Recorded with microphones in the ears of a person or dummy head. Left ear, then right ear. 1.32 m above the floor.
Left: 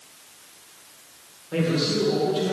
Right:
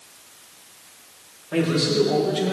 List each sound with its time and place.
1.5 s a man speaking: 10° right (ahead or behind), 4.5 m